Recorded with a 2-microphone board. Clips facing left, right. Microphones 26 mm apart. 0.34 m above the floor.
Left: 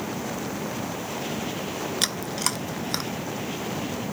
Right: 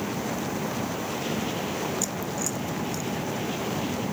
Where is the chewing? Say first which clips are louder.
Left 3 dB; 70° left (ahead or behind).